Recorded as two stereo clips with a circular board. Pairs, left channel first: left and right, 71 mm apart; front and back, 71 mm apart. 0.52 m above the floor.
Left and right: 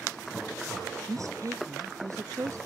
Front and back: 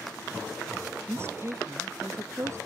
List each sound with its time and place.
1.1 s a woman speaking: 130° right; by 2.6 s 135° right